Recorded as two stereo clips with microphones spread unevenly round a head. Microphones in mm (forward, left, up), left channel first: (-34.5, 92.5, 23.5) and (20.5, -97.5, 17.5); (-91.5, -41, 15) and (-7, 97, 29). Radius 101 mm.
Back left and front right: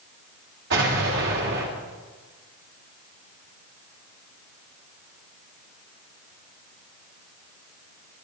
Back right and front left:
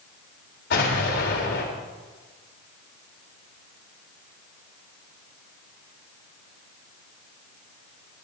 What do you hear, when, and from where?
0.7 s an explosion: 105° right, 3.5 m